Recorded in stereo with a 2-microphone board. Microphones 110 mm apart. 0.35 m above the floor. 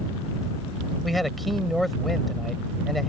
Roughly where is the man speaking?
Centre.